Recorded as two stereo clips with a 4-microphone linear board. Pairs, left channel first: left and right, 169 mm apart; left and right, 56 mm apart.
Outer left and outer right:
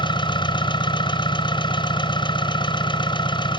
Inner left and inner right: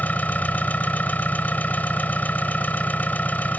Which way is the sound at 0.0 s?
30° left (ahead or behind).